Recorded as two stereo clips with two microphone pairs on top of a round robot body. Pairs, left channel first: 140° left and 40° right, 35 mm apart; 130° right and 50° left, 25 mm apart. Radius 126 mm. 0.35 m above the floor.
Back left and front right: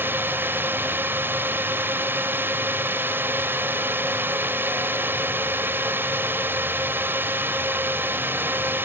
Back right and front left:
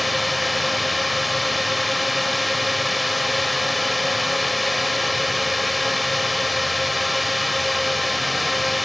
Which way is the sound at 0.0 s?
35° right.